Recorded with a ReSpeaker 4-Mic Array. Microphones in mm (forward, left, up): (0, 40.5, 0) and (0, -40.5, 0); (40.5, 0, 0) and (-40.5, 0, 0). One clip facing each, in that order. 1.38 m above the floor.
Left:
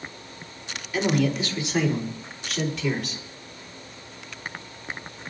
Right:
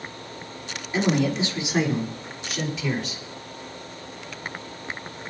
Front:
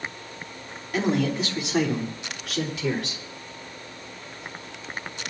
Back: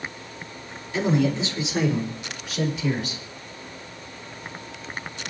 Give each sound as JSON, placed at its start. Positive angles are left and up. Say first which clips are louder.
{"t": 0.9, "sound": "a man speaking", "louder": "right 1 dB, back 2 dB", "azimuth_deg": -30, "distance_m": 4.0}